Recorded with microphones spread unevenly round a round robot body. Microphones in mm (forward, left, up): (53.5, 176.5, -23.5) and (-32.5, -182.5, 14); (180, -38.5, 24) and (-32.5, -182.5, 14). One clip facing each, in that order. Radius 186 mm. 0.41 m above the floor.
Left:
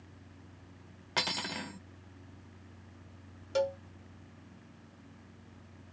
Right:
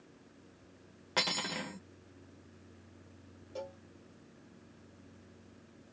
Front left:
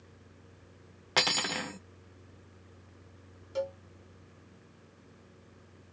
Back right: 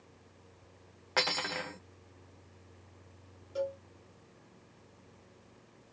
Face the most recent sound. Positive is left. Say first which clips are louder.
# left 13 dB, front left 1 dB
turn(degrees=85)